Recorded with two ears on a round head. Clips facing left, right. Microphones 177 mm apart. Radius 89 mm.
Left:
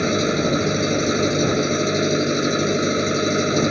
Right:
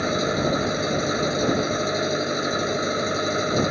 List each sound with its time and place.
0.0 s an engine running: 35° left (ahead or behind)